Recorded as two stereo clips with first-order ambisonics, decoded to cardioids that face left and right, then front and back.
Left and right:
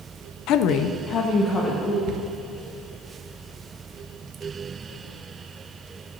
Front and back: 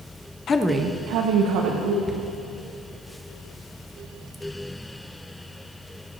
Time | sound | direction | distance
0.5 | a woman speaking | 55° left | 0.6 m
2.1 | a cupboard door | 80° right | 1.1 m